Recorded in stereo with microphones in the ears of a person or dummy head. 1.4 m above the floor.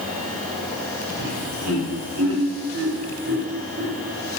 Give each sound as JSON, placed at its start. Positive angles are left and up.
{"t": 1.2, "sound": "laughter", "side_deg": -70, "distance_m": 6.5}